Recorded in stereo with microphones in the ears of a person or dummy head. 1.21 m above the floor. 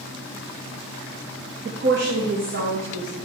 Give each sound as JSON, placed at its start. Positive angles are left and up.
{"t": 1.6, "sound": "a woman speaking", "side_deg": -45, "distance_m": 0.7}